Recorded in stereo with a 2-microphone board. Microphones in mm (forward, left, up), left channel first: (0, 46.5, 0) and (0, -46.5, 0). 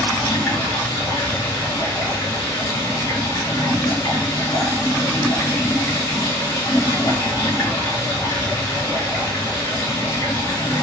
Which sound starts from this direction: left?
Running water, at 0.0 s.